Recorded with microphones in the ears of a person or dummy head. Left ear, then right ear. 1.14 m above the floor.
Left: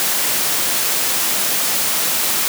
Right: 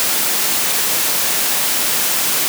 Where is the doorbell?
I don't hear a doorbell.